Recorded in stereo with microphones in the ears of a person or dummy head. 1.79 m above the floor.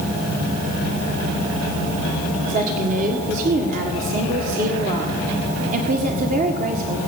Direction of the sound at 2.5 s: 45° right (ahead or behind).